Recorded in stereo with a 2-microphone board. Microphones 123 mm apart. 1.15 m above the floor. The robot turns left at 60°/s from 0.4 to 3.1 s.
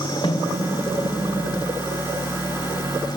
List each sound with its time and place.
0.2 s a snare drum: 35° left (ahead or behind), 1.9 m; by 0.5 s 40° left (ahead or behind), 1.9 m